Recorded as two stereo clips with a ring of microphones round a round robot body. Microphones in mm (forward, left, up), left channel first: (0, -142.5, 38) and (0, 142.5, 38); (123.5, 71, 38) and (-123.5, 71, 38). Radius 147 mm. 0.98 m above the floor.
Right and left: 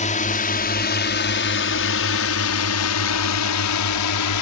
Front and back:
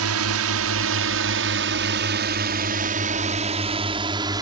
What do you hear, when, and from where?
0.0 s a drone: 155° right; by 4.4 s 105° right